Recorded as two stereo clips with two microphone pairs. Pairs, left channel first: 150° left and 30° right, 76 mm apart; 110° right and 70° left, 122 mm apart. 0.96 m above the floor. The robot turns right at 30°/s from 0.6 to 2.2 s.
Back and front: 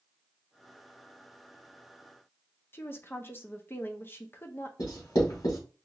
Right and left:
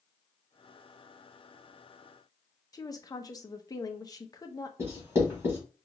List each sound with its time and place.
2.7 s a woman speaking: 165° right, 0.6 m
4.8 s writing: 135° left, 2 m